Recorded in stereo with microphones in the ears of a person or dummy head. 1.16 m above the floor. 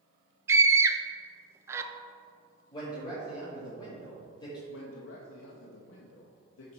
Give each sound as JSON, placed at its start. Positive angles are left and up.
{"t": 0.5, "sound": "a scream", "side_deg": -10, "distance_m": 0.7}
{"t": 2.7, "sound": "a man speaking", "side_deg": 30, "distance_m": 2.0}
{"t": 4.7, "sound": "a man speaking", "side_deg": 85, "distance_m": 1.0}